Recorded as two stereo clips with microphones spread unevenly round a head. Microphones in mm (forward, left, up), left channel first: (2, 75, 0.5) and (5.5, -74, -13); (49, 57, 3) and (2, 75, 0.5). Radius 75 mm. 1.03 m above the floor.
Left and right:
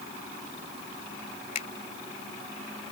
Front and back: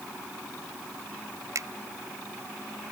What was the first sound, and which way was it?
A finger snap, 140° left.